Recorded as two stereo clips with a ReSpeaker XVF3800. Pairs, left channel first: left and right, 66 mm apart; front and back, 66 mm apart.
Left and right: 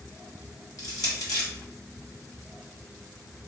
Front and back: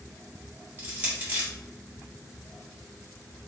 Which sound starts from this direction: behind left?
Crushing, at 0.8 s.